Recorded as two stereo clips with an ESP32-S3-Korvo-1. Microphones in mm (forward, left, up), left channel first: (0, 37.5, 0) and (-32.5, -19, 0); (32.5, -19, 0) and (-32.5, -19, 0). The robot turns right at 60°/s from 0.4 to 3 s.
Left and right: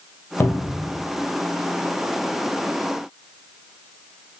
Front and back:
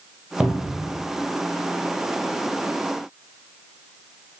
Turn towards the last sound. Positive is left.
turn(degrees=-100)